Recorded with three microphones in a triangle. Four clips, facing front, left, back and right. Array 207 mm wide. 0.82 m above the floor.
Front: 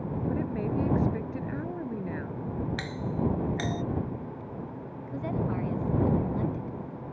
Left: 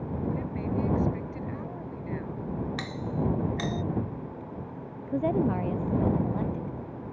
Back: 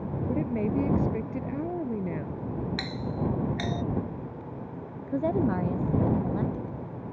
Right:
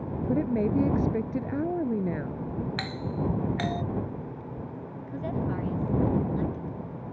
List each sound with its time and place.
0.3 s a woman speaking: 110° right
2.8 s a doorbell: 95° right
5.1 s a woman speaking: 130° left